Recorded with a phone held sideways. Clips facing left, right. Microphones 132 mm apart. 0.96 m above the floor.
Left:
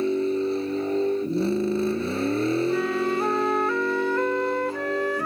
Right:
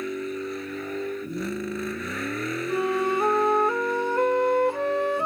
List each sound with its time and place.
0.0 s a vehicle: 25° left (ahead or behind)
2.7 s a flute: 20° right (ahead or behind)